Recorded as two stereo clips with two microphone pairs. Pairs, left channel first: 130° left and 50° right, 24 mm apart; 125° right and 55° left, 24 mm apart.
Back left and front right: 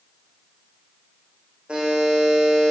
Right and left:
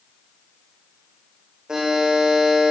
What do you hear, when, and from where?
1.7 s a buzzer: 5° right, 9 m